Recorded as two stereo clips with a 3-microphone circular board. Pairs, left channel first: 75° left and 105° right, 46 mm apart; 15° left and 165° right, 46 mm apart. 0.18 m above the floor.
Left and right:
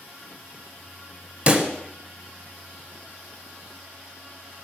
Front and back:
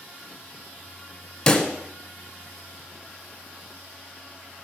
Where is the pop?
60° right, 1.2 m.